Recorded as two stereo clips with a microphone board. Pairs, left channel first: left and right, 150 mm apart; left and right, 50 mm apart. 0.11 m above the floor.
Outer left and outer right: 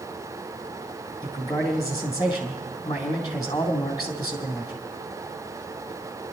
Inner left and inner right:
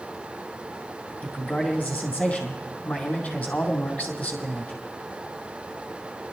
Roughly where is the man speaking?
Left.